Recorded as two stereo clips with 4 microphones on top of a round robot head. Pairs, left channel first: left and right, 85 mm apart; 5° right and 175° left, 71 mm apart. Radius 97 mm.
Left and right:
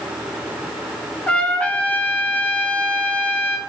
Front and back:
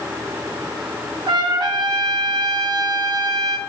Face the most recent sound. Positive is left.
turn(degrees=165)